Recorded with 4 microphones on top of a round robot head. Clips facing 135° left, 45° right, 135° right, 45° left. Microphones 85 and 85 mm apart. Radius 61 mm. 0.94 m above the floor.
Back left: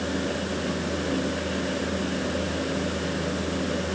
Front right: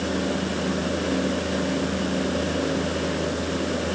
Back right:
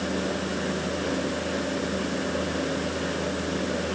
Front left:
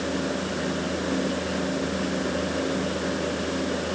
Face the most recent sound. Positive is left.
No sound to turn to.